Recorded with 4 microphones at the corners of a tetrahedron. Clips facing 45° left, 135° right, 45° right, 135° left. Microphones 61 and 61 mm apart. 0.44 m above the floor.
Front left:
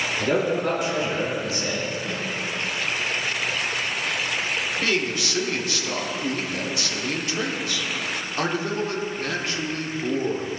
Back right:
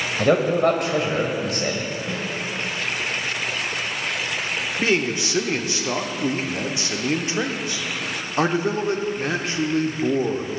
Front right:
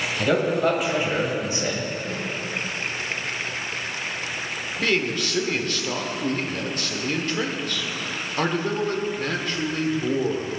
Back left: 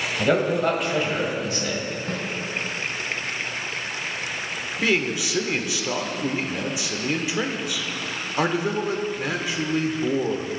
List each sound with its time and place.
0.2 s a man speaking: 150° right, 1.7 m; by 1.9 s 100° right, 1.9 m
2.1 s a snare drum: 150° left, 2.5 m
4.8 s a man speaking: 160° right, 0.7 m